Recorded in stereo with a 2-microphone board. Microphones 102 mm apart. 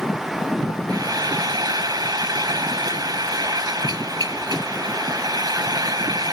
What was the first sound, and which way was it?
Frying, 40° right (ahead or behind).